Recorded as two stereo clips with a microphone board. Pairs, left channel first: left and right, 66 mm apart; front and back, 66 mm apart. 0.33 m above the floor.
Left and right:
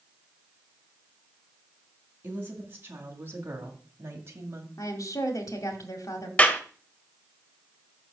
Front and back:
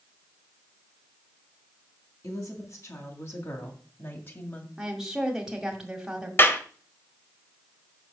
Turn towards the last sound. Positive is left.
turn(degrees=30)